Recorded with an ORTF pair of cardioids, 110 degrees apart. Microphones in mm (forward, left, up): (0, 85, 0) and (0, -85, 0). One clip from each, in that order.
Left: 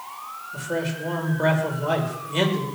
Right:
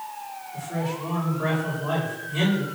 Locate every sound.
0.5 s a man speaking: 55° left, 7 m